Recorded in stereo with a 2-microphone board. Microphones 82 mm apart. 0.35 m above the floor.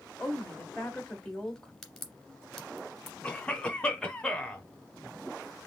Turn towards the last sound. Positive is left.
turn(degrees=15)  # may be behind; listen again after turning